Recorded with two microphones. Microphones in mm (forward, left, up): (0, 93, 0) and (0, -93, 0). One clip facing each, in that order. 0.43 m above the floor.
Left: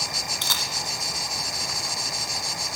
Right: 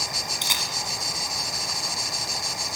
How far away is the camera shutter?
About 1.2 m.